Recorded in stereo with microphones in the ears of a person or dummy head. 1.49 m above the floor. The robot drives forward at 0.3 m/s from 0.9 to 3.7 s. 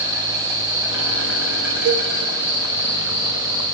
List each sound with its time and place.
0.0 s an insect: 10° right (ahead or behind), 8 m
1.9 s a cowbell: 65° right (ahead or behind), 0.9 m; by 2.1 s 70° right (ahead or behind), 0.8 m